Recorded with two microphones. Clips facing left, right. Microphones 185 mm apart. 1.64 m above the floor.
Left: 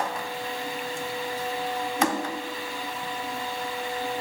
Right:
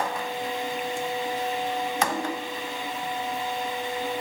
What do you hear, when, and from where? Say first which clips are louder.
2.0 s a whoosh: left 4 dB; 85° left, 8.5 m